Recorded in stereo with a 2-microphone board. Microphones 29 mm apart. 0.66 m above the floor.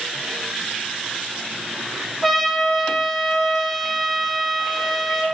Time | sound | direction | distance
2.2 | a trumpet | centre (ahead or behind) | 2.5 m